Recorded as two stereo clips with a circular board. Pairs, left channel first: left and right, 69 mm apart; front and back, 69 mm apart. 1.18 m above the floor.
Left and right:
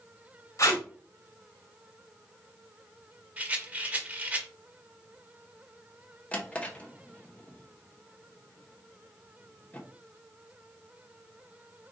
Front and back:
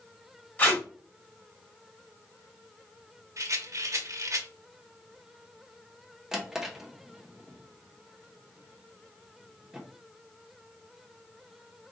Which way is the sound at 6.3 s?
105° left.